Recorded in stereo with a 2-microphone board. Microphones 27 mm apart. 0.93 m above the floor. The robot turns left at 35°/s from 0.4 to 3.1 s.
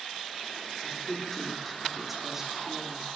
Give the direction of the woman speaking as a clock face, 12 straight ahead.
11 o'clock.